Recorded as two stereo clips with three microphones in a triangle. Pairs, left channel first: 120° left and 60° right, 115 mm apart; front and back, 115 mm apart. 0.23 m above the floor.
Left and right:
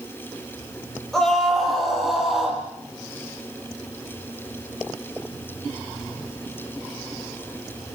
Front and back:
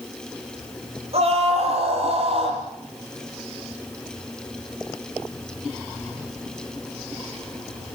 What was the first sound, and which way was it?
A scream, 155° right.